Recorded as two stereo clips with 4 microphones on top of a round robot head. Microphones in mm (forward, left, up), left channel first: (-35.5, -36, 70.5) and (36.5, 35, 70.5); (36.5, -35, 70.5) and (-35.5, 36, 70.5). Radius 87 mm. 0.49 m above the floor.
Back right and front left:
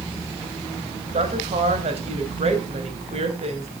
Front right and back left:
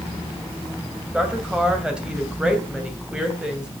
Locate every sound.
1.1 s a woman speaking: 55° left, 2.5 m